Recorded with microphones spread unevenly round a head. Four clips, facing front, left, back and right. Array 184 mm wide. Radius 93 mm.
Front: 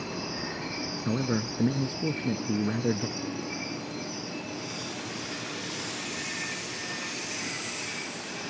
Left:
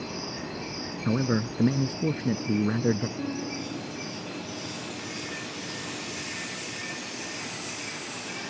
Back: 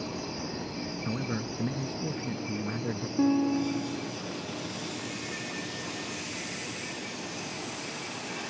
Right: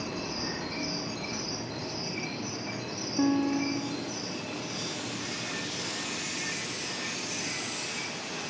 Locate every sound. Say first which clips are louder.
1.1 s a man speaking: left 10 dB, front 6 dB; 60° left
3.2 s a guitar: right 7 dB, back 10 dB; 145° right